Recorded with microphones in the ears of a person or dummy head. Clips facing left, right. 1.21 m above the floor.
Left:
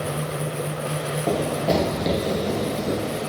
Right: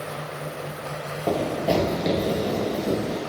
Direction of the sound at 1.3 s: 5° left (ahead or behind).